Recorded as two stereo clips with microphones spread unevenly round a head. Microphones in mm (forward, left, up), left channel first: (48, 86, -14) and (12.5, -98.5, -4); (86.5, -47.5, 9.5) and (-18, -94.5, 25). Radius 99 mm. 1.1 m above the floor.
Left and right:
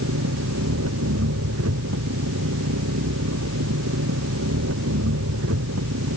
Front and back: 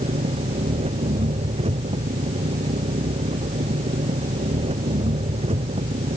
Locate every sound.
0.0 s an engine running: 125° right